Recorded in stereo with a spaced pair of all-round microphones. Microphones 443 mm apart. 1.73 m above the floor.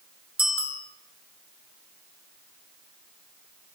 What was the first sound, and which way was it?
A bicycle bell, 30° right (ahead or behind).